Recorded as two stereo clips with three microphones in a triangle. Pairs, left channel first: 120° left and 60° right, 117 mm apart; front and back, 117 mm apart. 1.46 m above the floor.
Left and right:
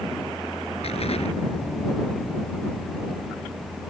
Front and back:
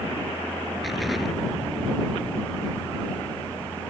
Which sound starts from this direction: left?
An explosion, at 0.8 s.